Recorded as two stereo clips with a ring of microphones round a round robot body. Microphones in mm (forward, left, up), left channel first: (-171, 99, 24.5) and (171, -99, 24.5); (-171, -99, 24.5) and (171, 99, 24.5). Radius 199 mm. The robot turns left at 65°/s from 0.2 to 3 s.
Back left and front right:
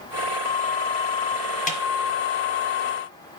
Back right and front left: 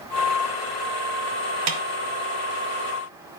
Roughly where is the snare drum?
Left.